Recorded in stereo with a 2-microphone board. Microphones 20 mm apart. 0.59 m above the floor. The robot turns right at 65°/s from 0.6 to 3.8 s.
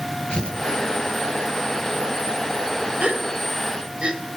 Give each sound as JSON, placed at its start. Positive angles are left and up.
{"t": 0.3, "sound": "tearing paper", "side_deg": 45, "distance_m": 5.0}
{"t": 3.0, "sound": "a gasp", "side_deg": -65, "distance_m": 3.5}